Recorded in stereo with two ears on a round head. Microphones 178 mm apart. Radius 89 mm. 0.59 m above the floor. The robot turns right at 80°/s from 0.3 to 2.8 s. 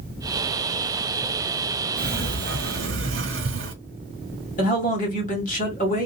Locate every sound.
2.0 s a sliding door: 135° right, 1.1 m; by 3.8 s 70° right, 1.1 m
4.6 s a man speaking: 40° left (ahead or behind), 1.7 m